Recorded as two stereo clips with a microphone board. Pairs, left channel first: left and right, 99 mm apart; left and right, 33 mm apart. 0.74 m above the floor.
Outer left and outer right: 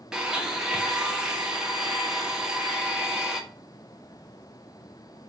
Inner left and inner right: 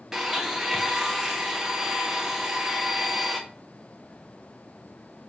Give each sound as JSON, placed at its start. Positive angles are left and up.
{"t": 0.1, "sound": "a blender", "side_deg": -10, "distance_m": 0.5}